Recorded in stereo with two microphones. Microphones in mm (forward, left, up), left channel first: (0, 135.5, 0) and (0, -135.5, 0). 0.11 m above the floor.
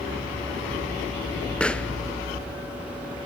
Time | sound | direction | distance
1.6 | a pop | 5° left (ahead or behind) | 0.5 m